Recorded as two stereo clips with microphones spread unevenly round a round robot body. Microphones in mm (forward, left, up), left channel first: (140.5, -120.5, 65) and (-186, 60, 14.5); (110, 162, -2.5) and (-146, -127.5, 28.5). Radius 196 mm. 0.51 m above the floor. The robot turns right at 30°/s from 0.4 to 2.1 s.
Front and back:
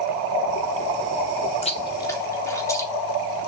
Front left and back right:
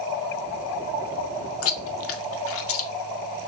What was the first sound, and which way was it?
Chewing, 45° left.